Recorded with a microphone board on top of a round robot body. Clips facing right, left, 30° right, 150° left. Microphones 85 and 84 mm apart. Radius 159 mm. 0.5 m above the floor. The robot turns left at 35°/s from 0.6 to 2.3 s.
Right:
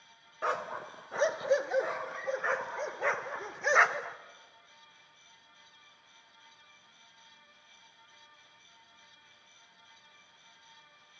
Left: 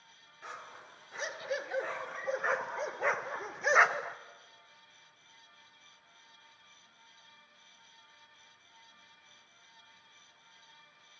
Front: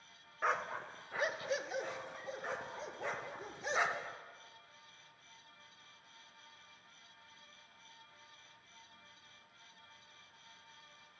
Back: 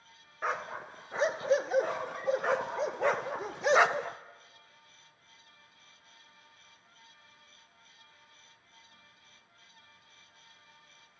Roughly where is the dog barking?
Behind right.